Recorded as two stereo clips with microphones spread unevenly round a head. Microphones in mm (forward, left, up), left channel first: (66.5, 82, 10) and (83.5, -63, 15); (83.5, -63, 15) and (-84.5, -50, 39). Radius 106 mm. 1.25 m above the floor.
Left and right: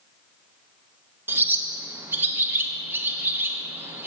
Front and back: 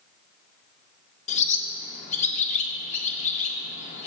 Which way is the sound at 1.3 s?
20° right.